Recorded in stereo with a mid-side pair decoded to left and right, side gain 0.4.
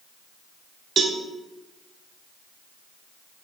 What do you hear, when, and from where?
1.0 s a cowbell: 60° right, 1.5 m